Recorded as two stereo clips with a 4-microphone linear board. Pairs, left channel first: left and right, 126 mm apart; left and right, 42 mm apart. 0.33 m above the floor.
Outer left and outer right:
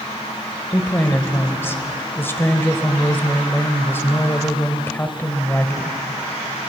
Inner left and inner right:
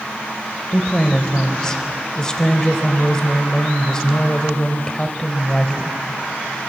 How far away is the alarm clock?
I don't hear an alarm clock.